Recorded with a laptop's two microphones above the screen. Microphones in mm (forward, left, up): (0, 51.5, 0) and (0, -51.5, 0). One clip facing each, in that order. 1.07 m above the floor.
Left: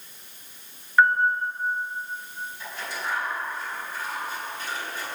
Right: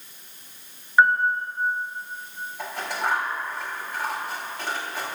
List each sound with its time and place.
1.0 s a piano: 15° right (ahead or behind), 2.5 m
2.6 s scissors: 75° right (ahead or behind), 6 m